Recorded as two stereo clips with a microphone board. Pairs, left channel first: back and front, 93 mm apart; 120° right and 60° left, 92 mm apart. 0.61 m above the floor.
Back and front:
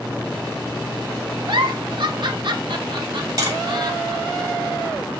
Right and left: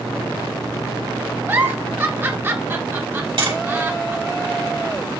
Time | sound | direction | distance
1.5 | a giggle | straight ahead | 1.2 m
3.4 | tapping | 45° left | 3 m